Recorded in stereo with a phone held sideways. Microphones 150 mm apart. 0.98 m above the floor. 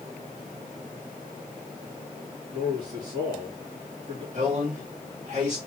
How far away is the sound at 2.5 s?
About 2.5 m.